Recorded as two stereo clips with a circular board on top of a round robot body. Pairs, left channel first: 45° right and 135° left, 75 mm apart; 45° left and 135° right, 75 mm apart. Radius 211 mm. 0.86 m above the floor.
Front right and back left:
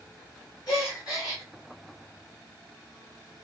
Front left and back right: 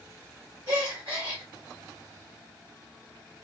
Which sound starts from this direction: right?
A gasp, at 0.7 s.